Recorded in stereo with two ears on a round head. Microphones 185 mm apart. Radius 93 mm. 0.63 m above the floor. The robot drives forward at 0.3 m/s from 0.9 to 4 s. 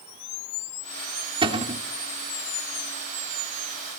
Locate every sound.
1.4 s a cupboard door: 25° right (ahead or behind), 0.9 m; by 1.8 s 30° right (ahead or behind), 0.8 m